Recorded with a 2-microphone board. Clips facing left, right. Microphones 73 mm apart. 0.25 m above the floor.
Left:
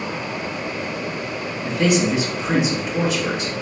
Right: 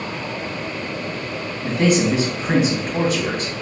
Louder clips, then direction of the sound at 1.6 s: Right 1 dB; 50° right (ahead or behind).